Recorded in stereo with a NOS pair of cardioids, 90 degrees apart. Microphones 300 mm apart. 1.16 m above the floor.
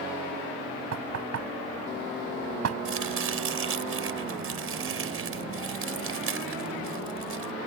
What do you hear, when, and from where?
0.9 s knocking: 55° right
2.9 s chopping: 45° right